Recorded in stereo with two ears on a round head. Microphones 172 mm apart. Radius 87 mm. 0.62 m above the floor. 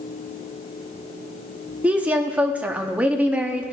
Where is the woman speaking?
5° right (ahead or behind), 0.8 m.